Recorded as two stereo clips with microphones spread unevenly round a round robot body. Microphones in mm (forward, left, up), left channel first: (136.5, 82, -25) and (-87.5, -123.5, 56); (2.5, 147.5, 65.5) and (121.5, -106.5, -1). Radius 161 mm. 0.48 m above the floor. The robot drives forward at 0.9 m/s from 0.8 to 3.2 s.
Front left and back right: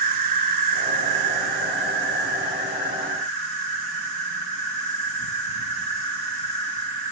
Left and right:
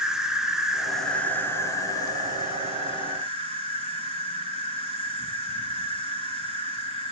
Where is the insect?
140° right, 1.4 m; by 7.1 s 170° right, 3 m.